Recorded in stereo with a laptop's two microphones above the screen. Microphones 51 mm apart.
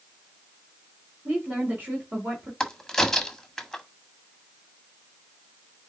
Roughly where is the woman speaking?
Right.